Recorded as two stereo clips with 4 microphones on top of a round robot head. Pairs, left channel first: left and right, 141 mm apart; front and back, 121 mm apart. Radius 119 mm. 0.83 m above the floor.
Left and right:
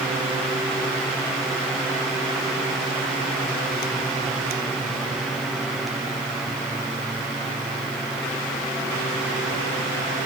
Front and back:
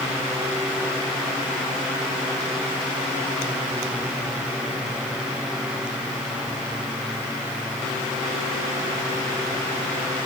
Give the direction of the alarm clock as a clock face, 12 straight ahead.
No alarm clock in this recording.